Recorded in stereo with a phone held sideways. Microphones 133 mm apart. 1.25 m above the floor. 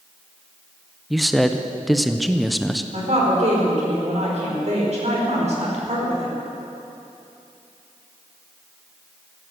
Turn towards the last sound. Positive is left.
turn(degrees=-60)  # may be behind; listen again after turning